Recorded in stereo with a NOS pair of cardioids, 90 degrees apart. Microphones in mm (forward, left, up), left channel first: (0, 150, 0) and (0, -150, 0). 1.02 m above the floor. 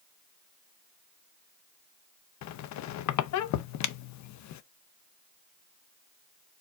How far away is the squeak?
About 0.6 m.